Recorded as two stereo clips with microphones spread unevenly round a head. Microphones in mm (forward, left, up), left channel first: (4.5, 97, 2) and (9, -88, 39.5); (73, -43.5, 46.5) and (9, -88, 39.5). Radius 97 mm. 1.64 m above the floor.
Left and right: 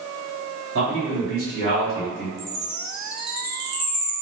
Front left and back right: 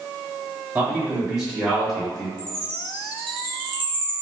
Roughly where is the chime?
Behind.